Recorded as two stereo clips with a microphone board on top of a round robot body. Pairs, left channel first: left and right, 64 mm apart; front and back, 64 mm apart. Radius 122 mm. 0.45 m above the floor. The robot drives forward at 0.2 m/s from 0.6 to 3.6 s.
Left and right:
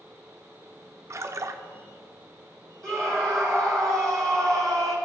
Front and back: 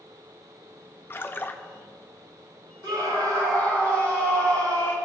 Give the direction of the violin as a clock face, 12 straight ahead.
No violin in this recording.